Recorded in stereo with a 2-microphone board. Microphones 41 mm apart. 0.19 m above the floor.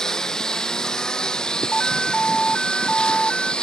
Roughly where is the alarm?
Centre.